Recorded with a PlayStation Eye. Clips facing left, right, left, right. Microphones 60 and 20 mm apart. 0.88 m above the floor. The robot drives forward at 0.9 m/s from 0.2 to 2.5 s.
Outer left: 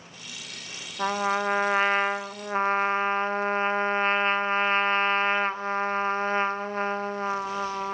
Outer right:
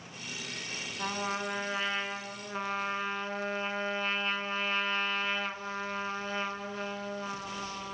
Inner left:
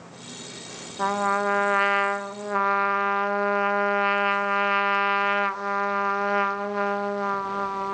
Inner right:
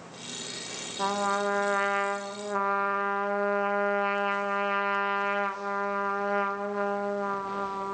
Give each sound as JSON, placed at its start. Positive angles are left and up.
{"t": 1.0, "sound": "a trumpet", "side_deg": 40, "distance_m": 1.5}